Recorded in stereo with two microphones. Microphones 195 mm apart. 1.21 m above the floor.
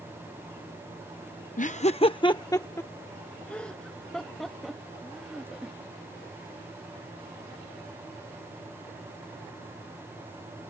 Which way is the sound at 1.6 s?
40° left (ahead or behind).